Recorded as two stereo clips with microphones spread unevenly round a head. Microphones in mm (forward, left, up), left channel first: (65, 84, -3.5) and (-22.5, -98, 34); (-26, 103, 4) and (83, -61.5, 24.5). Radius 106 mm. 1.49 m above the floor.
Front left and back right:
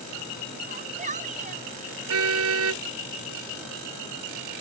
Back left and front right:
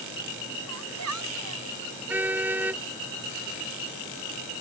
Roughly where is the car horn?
Behind right.